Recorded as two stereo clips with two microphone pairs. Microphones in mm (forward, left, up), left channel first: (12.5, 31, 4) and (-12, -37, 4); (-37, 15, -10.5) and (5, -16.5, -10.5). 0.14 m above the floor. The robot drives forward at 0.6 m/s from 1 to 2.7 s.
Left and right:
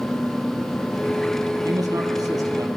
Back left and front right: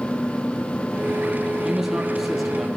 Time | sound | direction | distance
1.6 | a man speaking | 115° right | 3 m